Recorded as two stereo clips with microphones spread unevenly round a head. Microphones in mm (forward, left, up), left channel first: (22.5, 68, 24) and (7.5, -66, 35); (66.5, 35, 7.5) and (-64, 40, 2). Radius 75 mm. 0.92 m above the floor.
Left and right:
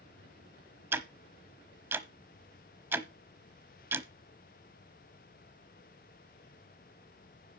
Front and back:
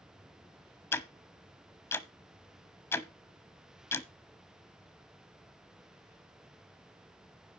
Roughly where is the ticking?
Ahead right.